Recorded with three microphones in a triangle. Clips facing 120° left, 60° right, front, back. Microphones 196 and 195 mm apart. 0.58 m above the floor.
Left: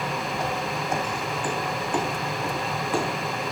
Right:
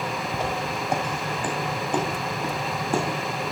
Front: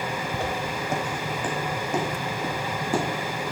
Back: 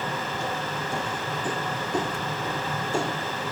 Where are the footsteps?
5° left, 1.4 m; by 3.0 s 15° right, 3 m.